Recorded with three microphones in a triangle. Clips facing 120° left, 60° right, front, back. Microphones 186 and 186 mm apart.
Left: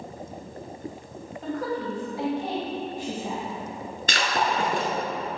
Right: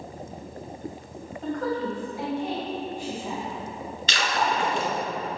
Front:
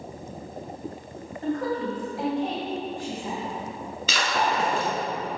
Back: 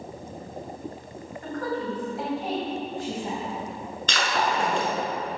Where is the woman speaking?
30° left, 1.8 m; by 3.5 s 135° left, 2.5 m.